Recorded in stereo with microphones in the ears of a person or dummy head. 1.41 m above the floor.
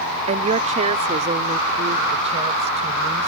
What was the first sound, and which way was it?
A woman speaking, 45° right (ahead or behind).